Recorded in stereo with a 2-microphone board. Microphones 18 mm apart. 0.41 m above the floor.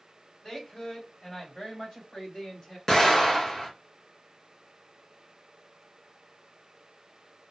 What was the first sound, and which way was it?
A woman speaking, 50° left (ahead or behind).